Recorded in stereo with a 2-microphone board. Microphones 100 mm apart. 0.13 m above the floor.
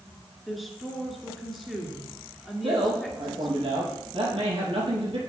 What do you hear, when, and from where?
0.5 s a woman speaking: centre (ahead or behind), 2 m
2.6 s a man speaking: 70° right (ahead or behind), 4.5 m